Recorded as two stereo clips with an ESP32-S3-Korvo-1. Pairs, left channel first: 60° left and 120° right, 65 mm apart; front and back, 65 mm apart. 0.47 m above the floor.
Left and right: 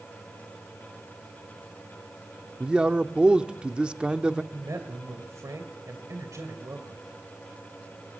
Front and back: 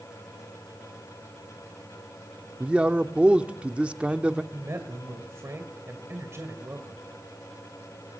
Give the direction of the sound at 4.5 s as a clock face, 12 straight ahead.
5 o'clock.